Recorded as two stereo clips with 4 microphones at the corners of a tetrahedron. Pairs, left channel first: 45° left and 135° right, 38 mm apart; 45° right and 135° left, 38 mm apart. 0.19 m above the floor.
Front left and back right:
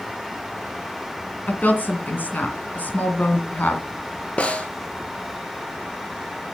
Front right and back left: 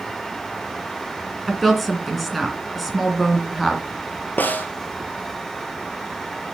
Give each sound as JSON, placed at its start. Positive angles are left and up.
{"t": 1.5, "sound": "a woman speaking", "azimuth_deg": 45, "distance_m": 2.0}
{"t": 4.4, "sound": "a snare drum", "azimuth_deg": -10, "distance_m": 1.4}